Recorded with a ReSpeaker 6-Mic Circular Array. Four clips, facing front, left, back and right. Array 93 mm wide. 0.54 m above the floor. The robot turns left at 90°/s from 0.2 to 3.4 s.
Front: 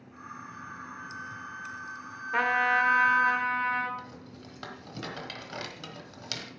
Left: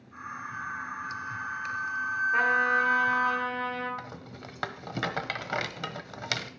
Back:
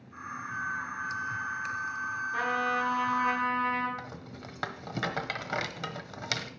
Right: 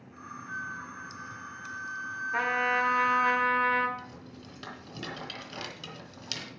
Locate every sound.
0.5 s a flute: 135° right, 1.6 m; by 3.3 s 30° right, 1.6 m
2.3 s a trumpet: 10° left, 2 m; by 3.9 s 85° right, 2 m
4.0 s a rattle: 120° left, 1.1 m